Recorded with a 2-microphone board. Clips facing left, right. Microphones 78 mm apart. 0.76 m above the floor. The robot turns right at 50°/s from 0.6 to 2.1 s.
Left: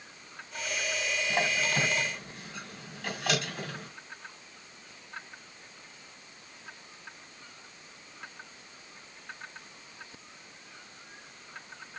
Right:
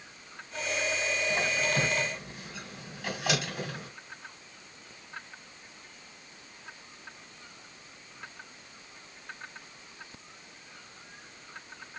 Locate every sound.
1.3 s a squeak: 30° left (ahead or behind), 2 m; by 3.9 s 10° right (ahead or behind), 2 m